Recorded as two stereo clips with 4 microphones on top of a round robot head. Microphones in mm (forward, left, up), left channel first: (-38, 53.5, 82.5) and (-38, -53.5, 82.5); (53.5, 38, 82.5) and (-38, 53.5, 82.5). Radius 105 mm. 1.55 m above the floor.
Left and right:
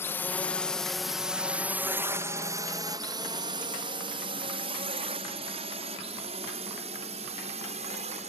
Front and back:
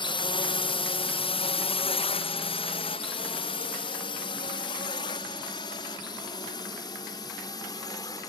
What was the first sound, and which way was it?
A drone, 20° left.